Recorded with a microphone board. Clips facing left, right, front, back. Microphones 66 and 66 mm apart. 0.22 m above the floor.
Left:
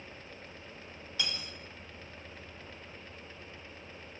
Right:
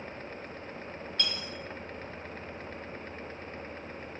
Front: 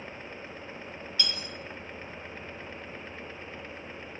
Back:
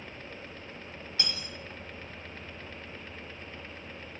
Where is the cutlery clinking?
165° left, 0.6 m.